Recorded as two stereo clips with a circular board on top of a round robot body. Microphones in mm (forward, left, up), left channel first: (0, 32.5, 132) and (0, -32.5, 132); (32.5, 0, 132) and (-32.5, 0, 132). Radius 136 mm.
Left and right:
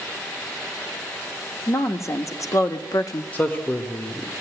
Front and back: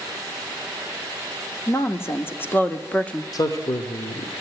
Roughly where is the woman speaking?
Ahead left.